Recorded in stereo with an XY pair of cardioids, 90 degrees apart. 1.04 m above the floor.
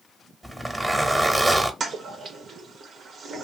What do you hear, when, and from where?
0.4 s a zipper: 15° right, 1.1 m
1.8 s a toilet flushing: 60° right, 1.0 m